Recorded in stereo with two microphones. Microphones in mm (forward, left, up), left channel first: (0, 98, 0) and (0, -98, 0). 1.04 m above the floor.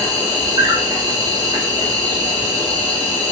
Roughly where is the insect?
Right.